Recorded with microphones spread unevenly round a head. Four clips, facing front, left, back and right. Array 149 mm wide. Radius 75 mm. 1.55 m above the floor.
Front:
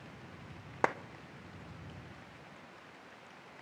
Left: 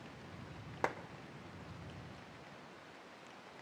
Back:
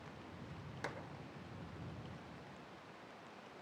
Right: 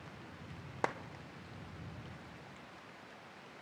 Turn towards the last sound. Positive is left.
turn(degrees=-5)